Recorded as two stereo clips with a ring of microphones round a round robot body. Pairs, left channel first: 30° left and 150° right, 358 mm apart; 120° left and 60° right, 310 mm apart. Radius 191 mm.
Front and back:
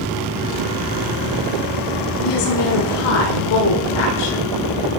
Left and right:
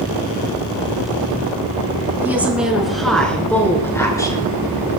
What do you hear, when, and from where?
2.2 s a woman speaking: 25° left, 4.5 m; by 4.6 s 45° left, 6 m